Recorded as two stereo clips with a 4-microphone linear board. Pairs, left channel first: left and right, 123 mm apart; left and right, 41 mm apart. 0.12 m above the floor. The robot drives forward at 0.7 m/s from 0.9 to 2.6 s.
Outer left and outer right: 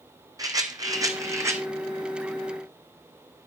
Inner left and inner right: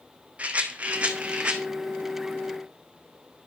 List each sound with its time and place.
0.4 s a rattle: 30° right (ahead or behind), 1.6 m; by 1.6 s 25° right (ahead or behind), 2 m